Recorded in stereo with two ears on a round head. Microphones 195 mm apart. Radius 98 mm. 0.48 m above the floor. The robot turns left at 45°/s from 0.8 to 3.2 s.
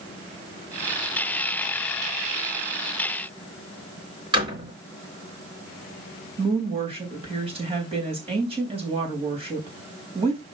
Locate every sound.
4.3 s a door slam: 20° right (ahead or behind), 3.5 m
6.4 s a woman speaking: 30° right (ahead or behind), 3.5 m